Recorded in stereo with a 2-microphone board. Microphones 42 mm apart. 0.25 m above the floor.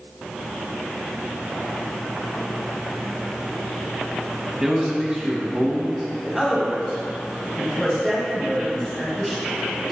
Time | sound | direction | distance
4.6 | a man speaking | 15° right (ahead or behind) | 1.3 m
6.2 | a man speaking | 5° right (ahead or behind) | 1.7 m